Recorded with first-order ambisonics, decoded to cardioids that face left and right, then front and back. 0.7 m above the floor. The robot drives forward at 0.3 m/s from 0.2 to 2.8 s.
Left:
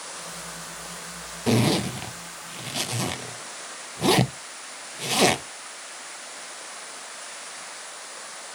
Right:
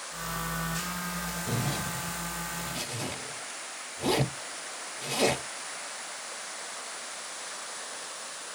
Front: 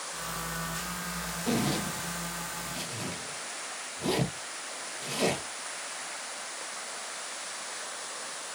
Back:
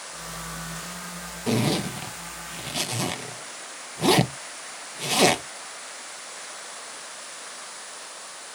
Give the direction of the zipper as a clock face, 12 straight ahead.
8 o'clock.